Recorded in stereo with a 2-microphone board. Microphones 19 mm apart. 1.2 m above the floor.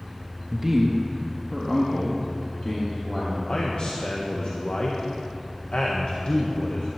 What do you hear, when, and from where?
0.5 s a man speaking: 30° right (ahead or behind), 1.2 m; by 3.4 s 35° left (ahead or behind), 2.5 m
3.5 s a man speaking: 55° left (ahead or behind), 1.4 m